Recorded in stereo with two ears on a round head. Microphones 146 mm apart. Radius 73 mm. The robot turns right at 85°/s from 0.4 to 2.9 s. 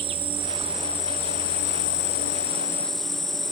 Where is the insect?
35° right, 0.9 m; by 3.5 s straight behind, 0.9 m.